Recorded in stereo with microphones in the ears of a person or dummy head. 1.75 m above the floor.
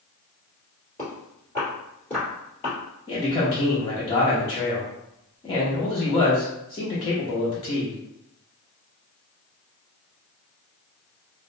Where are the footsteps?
5° left (ahead or behind), 1.9 m; by 2.8 s 20° left (ahead or behind), 1.9 m.